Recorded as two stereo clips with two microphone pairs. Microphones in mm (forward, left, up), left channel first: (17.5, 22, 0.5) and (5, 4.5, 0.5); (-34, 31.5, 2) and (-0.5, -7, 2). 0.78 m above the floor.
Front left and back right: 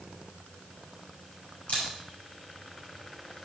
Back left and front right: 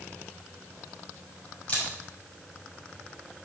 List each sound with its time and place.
1.7 s a camera shutter: 65° left, 5.5 m